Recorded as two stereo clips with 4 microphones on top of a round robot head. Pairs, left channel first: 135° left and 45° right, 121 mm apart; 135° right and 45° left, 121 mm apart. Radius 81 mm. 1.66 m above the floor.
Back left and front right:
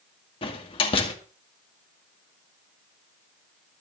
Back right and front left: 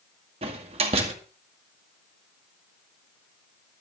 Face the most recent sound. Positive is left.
turn(degrees=90)